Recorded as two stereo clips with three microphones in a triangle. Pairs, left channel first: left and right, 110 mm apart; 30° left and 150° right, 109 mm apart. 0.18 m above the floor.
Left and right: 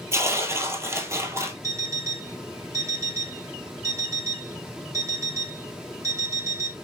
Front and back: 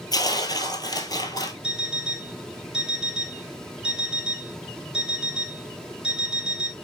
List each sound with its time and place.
0.1 s tearing paper: 25° right, 0.7 m
1.6 s an alarm clock: 75° right, 0.7 m